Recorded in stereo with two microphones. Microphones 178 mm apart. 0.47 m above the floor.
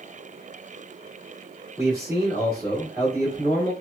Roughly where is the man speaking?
Centre.